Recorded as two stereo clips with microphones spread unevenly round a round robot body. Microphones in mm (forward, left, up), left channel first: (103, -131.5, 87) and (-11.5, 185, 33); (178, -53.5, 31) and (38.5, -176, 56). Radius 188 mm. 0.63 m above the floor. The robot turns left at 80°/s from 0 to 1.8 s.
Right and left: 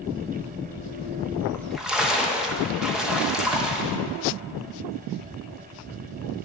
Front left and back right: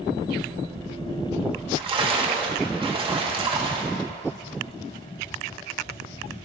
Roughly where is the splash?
Behind.